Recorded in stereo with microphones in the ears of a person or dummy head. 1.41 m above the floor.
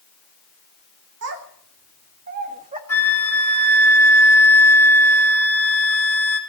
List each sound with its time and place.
1.2 s a child speaking: 65° right (ahead or behind), 3 m; by 2.8 s 30° right (ahead or behind), 2 m
2.9 s a flute: 10° left (ahead or behind), 4.5 m